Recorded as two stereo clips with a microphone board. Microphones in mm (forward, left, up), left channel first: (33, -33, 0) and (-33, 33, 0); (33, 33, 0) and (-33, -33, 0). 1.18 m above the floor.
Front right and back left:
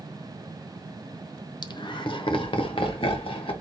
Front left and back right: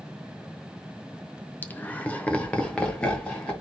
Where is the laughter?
20° right, 0.6 m; by 3.5 s 35° right, 1.6 m.